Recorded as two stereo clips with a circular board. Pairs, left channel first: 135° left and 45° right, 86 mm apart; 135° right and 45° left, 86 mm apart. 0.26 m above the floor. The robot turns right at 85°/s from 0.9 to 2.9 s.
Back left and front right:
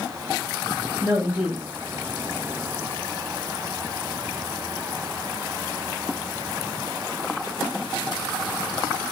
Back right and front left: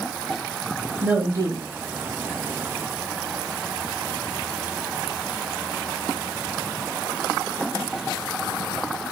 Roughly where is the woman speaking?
Ahead.